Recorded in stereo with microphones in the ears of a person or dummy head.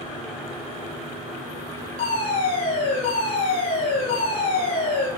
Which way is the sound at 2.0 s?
35° left (ahead or behind).